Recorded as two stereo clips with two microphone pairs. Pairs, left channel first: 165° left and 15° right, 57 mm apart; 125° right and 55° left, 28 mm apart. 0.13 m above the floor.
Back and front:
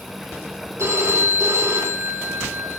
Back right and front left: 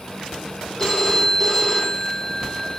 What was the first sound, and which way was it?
A phone ringing, 50° right.